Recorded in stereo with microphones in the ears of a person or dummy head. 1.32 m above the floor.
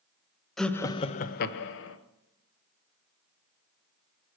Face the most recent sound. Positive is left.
turn(degrees=70)  # may be behind; listen again after turning